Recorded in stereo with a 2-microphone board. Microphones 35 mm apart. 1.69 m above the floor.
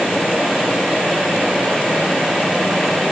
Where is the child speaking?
No child speaking in this recording.